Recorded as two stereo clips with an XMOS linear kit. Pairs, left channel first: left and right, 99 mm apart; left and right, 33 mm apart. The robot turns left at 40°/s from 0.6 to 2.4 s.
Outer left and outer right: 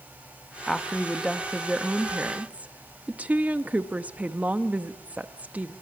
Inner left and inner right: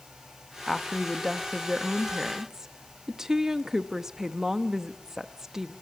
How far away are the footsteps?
No footsteps in this recording.